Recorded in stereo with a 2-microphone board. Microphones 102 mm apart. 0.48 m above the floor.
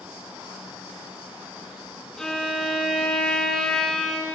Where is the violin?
5° left (ahead or behind), 0.8 m.